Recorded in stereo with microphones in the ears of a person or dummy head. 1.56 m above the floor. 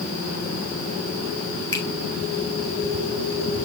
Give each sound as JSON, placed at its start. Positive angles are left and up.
{"t": 1.7, "sound": "a finger snap", "side_deg": 20, "distance_m": 2.0}